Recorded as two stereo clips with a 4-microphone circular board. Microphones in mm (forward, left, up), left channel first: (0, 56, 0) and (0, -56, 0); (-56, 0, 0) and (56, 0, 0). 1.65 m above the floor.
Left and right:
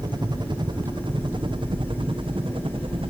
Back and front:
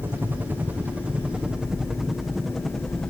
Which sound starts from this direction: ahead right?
A helicopter, at 0.0 s.